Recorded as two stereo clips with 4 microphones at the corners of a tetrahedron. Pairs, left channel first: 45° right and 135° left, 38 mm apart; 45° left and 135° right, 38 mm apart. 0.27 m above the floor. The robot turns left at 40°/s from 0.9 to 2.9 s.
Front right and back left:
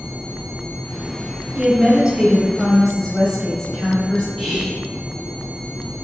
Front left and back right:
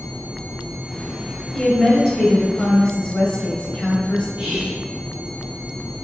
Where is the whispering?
145° right, 1.7 m.